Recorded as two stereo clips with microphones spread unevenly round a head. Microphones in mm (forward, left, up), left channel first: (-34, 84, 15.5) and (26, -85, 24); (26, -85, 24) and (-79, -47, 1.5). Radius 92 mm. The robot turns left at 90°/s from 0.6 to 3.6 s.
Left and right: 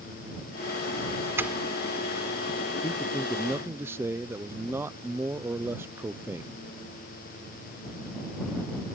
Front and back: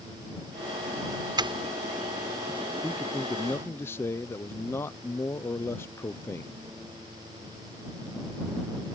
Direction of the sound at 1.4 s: 145° right.